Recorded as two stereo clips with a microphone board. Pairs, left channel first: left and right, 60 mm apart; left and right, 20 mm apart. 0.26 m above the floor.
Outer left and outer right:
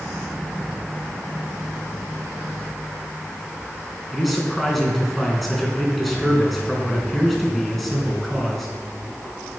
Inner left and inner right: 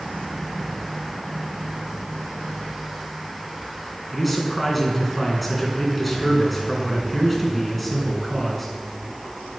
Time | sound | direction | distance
4.1 | a man speaking | centre (ahead or behind) | 3 m